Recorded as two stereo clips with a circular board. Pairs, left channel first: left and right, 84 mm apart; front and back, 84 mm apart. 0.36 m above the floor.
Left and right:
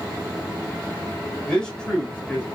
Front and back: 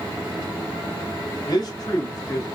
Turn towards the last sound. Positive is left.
turn(degrees=25)